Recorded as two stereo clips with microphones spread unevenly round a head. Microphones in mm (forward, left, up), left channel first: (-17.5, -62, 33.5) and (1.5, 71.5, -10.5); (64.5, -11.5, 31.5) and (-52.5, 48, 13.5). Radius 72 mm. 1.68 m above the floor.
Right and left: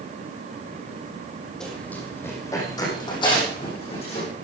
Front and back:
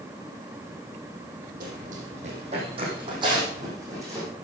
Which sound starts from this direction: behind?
Running footsteps, at 1.6 s.